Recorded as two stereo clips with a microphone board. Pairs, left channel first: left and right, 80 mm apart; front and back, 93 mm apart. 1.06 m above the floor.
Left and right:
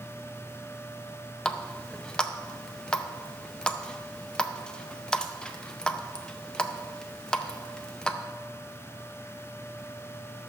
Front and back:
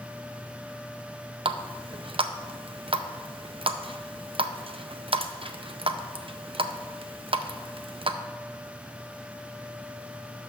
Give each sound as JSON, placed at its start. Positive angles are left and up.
{"t": 1.4, "sound": "a running tap", "azimuth_deg": 170, "distance_m": 0.5}